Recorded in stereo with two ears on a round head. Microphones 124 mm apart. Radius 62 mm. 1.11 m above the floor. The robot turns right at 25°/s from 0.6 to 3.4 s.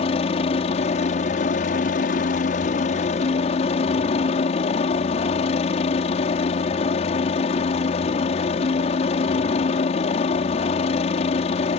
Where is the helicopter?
55° left; by 11.8 s 125° left.